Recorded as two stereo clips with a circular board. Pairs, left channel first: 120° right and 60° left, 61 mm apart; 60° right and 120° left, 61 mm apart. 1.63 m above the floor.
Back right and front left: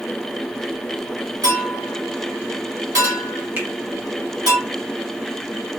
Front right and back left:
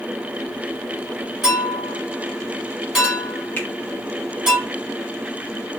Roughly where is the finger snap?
Ahead.